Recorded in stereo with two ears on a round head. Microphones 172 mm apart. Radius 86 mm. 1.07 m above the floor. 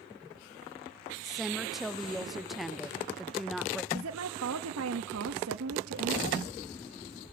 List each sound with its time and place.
1.2 s a woman speaking: centre (ahead or behind), 0.8 m
3.9 s a woman speaking: 85° right, 1.1 m